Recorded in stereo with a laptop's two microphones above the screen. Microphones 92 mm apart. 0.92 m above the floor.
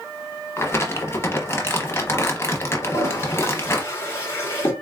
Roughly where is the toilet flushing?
Left.